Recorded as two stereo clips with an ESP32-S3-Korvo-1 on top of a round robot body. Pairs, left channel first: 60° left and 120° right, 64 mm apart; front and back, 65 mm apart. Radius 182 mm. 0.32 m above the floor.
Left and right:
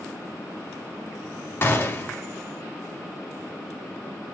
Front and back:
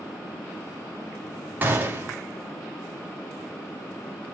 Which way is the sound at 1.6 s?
115° left.